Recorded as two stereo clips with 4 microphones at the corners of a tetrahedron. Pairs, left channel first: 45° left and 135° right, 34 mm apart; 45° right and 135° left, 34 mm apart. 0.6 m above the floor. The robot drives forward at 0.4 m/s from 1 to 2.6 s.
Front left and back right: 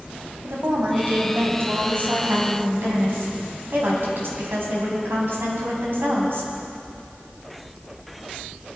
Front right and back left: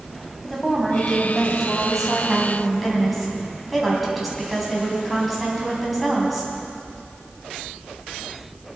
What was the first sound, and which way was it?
A woman speaking, 135° right.